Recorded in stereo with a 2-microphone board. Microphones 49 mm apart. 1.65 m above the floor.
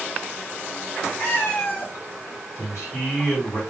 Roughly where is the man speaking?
Left.